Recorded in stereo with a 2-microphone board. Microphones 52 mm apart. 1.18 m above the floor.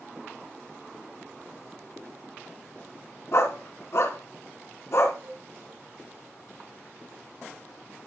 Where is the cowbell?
80° right, 5.5 m.